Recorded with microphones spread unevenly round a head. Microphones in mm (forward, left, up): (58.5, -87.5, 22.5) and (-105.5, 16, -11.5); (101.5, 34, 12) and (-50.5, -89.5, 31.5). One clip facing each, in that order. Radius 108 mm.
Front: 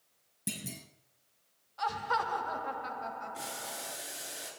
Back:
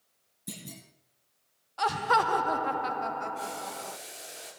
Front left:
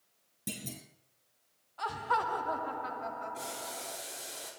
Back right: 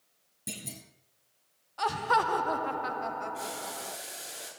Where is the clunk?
35° right, 6.5 m.